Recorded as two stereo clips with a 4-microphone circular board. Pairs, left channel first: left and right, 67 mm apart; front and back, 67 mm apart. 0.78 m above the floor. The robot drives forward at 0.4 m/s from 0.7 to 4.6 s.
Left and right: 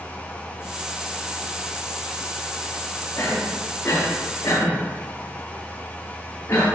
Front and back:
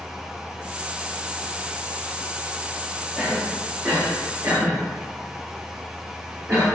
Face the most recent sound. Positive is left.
turn(degrees=140)